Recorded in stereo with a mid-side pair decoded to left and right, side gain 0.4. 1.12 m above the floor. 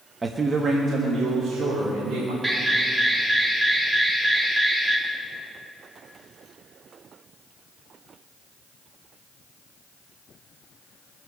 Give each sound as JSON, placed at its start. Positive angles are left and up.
{"t": 0.2, "sound": "a man speaking", "azimuth_deg": -35, "distance_m": 1.0}
{"t": 2.4, "sound": "an alarm", "azimuth_deg": -30, "distance_m": 2.5}